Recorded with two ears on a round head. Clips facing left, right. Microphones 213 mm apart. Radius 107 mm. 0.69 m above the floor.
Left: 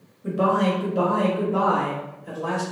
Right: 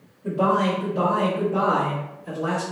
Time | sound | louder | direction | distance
0.2 | a man speaking | even | 20° left (ahead or behind) | 1.1 m